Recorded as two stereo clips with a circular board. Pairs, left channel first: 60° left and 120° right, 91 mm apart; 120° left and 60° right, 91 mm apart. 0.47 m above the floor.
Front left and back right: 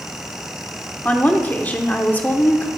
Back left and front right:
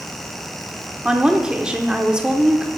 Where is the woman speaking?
10° left, 0.9 m.